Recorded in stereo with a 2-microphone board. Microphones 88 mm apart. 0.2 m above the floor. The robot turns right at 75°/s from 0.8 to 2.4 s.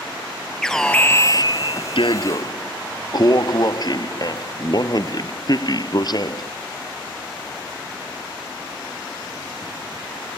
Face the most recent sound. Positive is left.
turn(degrees=125)